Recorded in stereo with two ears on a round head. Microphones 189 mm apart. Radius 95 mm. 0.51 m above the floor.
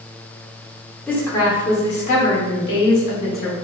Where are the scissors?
No scissors in this recording.